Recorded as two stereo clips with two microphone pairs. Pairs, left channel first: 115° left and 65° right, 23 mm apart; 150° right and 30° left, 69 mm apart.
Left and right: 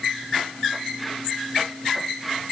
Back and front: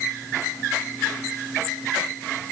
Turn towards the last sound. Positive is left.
No sound to turn to.